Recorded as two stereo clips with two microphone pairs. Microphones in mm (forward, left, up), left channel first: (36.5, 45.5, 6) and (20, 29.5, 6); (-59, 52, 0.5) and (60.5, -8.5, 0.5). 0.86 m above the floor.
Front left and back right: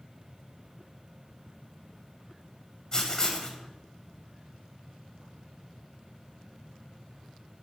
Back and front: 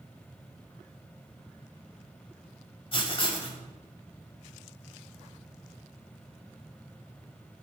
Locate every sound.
2.9 s writing: 105° left, 1.7 m